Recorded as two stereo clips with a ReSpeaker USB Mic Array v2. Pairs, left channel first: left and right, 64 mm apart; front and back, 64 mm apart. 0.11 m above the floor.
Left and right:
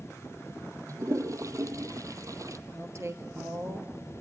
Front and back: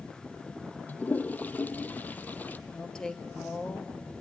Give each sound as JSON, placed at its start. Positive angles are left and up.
{"t": 0.9, "sound": "a toilet flushing", "azimuth_deg": -65, "distance_m": 0.8}
{"t": 2.7, "sound": "a woman speaking", "azimuth_deg": -75, "distance_m": 1.8}